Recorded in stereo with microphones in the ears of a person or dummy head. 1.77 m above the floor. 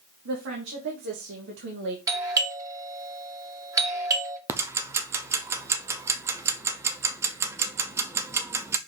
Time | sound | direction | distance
0.2 | a woman speaking | 75° right (ahead or behind) | 2.5 m
2.1 | a doorbell | 20° right (ahead or behind) | 2.0 m
4.5 | ticking | 15° right (ahead or behind) | 0.5 m